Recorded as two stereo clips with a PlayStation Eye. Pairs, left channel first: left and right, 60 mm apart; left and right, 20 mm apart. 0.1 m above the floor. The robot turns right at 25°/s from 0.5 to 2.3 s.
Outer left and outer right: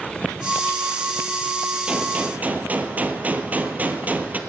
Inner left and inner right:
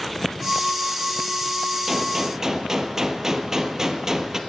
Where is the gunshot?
20° right (ahead or behind), 0.9 m; by 4.4 s 30° right (ahead or behind), 0.9 m.